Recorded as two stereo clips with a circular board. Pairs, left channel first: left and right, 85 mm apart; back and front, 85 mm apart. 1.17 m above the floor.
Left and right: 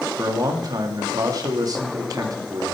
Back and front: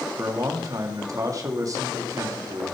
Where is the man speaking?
45° right, 1.7 m.